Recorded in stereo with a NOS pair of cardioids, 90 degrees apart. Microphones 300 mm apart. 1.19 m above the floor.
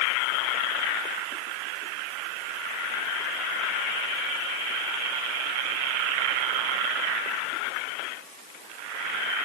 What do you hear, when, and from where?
Only background noise.